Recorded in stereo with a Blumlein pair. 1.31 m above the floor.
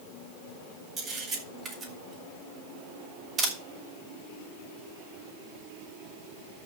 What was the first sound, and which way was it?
A camera shutter, 20° right.